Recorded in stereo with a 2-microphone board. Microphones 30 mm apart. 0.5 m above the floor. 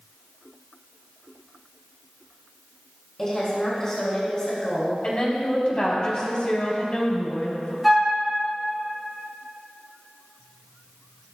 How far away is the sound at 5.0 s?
About 4 m.